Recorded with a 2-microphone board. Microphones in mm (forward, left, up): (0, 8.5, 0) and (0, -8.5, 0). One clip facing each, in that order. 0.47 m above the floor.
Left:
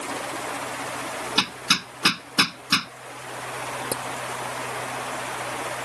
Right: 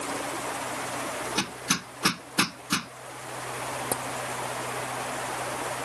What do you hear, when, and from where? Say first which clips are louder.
1.4 s hammering: left 8 dB; 70° left (ahead or behind)
3.9 s tapping: left 1 dB; 60° left (ahead or behind)